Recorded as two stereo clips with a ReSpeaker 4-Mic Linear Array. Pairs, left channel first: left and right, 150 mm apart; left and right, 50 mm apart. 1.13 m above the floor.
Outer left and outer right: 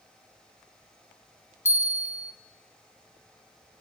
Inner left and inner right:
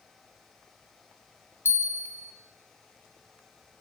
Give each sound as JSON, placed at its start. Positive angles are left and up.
{"t": 1.6, "sound": "a bell", "side_deg": 55, "distance_m": 1.6}